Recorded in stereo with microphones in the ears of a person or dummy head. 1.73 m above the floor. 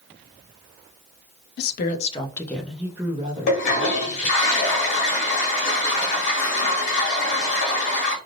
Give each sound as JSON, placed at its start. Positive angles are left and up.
{"t": 1.6, "sound": "a woman speaking", "side_deg": 55, "distance_m": 0.7}
{"t": 3.5, "sound": "a toilet flushing", "side_deg": 40, "distance_m": 1.1}